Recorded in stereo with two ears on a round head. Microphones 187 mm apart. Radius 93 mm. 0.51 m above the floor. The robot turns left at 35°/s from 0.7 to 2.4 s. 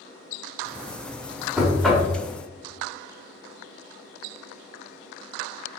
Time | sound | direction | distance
1.6 | knocking | 5° right (ahead or behind) | 0.6 m